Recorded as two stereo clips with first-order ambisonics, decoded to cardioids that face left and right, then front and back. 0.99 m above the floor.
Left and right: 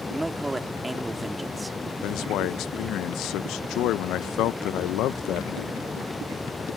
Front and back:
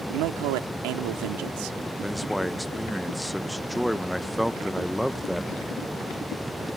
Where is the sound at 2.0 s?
95° left.